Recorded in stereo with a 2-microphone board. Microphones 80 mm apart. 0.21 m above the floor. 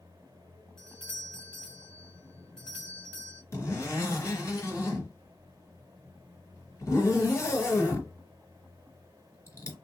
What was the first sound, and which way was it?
A doorbell, 10° left (ahead or behind).